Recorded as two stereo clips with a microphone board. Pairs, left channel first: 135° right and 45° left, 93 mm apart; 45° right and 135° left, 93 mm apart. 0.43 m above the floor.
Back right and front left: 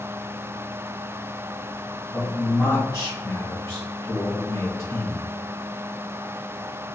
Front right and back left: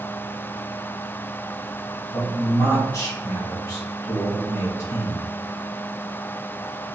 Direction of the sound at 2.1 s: 85° right.